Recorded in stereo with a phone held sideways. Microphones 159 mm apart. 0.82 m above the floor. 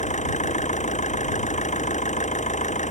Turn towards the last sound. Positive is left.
turn(degrees=50)  # may be behind; listen again after turning